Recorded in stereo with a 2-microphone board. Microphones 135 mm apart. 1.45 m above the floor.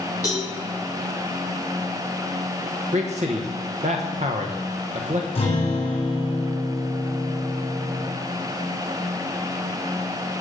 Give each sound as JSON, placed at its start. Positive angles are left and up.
{"t": 0.2, "sound": "a cowbell", "side_deg": 30, "distance_m": 3.5}
{"t": 2.9, "sound": "a man speaking", "side_deg": -55, "distance_m": 1.0}
{"t": 5.3, "sound": "a guitar", "side_deg": 45, "distance_m": 3.5}